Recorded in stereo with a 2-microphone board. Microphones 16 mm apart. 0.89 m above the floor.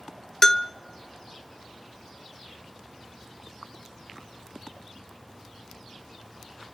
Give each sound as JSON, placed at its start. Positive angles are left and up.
{"t": 0.4, "sound": "a bell", "side_deg": 30, "distance_m": 0.6}